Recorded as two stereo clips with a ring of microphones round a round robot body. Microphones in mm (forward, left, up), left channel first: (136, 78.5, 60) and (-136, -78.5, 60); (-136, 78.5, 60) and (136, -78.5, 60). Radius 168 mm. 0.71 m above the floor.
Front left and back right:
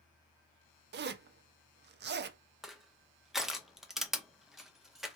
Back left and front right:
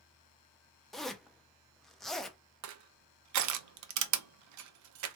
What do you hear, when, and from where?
0.9 s a zipper: 120° right, 0.5 m
2.6 s crushing: 60° right, 0.5 m